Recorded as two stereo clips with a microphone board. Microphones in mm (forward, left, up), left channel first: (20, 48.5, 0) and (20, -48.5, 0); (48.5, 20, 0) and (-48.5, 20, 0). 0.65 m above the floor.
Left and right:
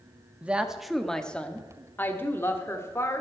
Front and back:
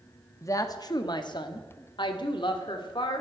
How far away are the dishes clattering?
I don't hear dishes clattering.